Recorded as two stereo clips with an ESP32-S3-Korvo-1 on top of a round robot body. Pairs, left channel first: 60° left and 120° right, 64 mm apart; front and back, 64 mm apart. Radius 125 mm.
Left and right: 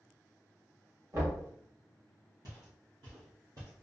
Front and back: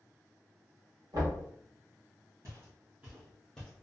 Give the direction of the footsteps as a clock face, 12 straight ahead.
5 o'clock.